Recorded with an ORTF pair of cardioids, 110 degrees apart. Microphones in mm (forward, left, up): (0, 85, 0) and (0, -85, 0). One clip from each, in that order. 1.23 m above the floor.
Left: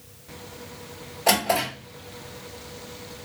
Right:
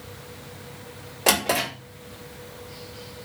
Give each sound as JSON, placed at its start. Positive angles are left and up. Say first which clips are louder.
{"t": 1.3, "sound": "a drawer", "louder": "even", "azimuth_deg": -55, "distance_m": 1.7}